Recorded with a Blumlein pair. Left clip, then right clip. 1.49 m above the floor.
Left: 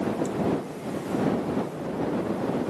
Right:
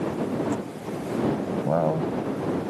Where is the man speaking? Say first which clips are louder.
Right 6 dB; 40° right; by 2.7 s 35° right.